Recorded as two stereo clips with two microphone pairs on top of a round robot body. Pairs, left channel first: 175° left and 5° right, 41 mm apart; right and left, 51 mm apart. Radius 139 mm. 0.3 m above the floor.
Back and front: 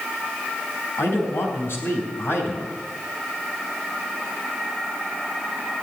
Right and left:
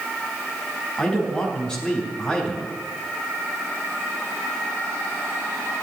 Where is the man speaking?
165° right, 4.5 m.